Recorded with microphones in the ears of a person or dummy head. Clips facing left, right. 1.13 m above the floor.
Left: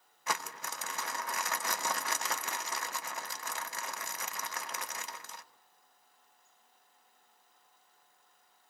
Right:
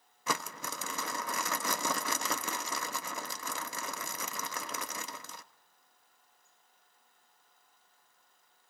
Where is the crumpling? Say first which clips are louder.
Right 2 dB; 80° right, 1.1 m.